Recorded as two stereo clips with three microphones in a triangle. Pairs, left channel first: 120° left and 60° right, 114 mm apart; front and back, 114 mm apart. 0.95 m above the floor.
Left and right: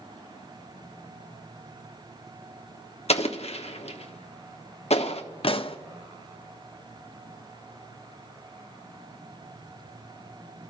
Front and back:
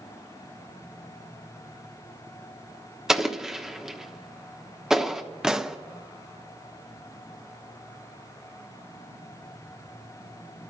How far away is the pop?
About 0.7 m.